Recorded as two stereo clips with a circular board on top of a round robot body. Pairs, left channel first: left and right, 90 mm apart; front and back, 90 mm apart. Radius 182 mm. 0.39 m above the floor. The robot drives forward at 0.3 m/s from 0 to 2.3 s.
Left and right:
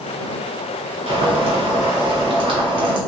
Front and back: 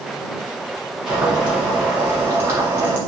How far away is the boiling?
About 1.4 m.